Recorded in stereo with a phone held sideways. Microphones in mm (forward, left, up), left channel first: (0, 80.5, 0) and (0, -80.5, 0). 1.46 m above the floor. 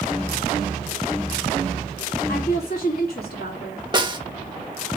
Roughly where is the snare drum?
Right.